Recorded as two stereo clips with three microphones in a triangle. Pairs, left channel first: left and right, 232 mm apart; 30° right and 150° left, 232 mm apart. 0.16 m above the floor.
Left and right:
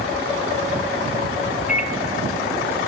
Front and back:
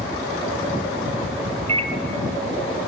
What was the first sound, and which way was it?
A microwave, 110° left.